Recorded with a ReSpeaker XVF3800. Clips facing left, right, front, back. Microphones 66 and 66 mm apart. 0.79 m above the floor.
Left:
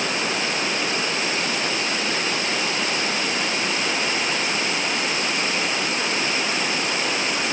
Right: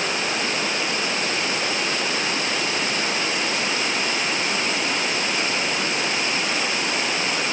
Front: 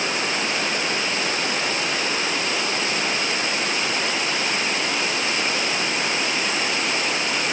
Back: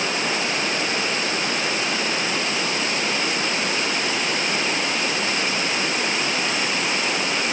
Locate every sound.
Only background noise.